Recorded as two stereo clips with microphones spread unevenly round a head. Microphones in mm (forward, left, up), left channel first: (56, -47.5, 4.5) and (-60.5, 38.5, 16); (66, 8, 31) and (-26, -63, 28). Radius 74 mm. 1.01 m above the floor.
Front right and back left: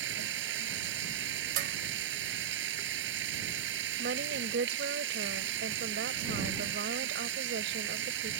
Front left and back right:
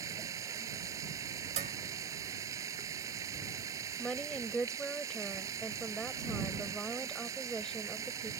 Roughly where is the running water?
Behind left.